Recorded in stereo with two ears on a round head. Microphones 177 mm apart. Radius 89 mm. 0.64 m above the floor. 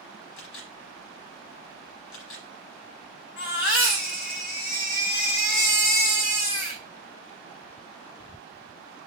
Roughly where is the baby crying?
Left.